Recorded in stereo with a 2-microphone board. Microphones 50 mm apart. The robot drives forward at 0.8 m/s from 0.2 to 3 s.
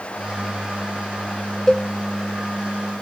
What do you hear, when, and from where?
1.7 s a cowbell: 10° left (ahead or behind), 0.5 m